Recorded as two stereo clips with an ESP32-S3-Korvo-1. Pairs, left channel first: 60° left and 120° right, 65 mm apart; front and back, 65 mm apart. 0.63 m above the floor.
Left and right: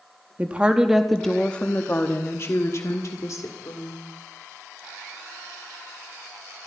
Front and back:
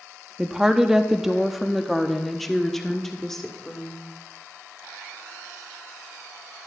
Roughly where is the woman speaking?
Behind right.